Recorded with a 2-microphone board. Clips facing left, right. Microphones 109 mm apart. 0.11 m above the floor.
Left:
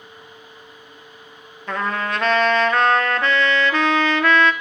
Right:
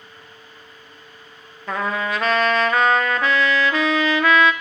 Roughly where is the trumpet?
Centre.